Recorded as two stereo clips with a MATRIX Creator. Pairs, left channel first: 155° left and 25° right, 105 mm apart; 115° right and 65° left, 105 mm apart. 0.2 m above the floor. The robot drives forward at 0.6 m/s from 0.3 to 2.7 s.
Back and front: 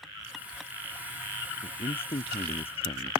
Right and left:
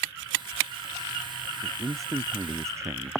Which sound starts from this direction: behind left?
A man speaking, at 1.6 s.